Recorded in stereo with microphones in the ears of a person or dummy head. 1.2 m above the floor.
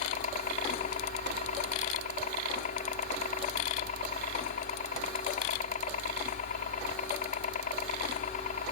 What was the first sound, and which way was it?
A helicopter, 45° left (ahead or behind).